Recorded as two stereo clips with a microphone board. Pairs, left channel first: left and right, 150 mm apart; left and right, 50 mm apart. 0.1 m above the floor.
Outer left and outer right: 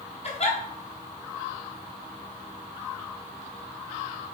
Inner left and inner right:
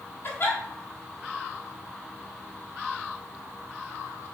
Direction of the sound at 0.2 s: 45° left (ahead or behind).